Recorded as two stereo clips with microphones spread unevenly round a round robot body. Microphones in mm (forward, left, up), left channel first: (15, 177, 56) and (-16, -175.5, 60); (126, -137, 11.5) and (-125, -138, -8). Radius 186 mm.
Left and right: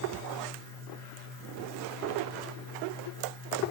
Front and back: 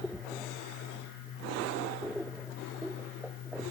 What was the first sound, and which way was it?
Only background noise.